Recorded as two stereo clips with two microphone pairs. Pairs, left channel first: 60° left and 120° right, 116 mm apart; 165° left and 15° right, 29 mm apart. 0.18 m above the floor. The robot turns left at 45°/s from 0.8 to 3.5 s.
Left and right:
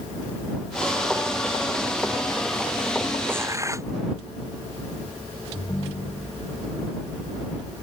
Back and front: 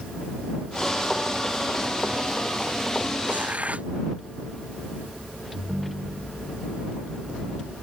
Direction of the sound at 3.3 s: 45° right.